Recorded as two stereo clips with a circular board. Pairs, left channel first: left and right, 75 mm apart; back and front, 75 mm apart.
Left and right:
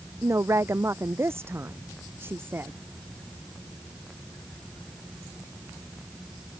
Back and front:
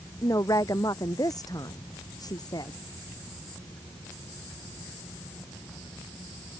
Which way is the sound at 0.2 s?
140° right.